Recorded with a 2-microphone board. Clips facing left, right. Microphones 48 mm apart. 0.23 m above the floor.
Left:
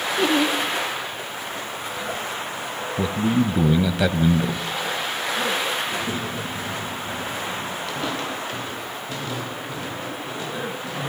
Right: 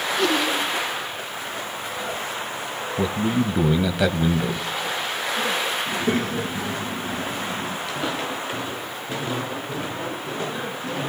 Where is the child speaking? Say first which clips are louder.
Right 3 dB; 55° right (ahead or behind), 2.5 m.